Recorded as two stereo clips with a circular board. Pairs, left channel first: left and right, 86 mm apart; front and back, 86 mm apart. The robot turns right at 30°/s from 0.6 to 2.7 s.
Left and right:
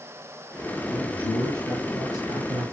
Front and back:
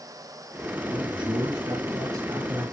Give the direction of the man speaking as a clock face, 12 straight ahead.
6 o'clock.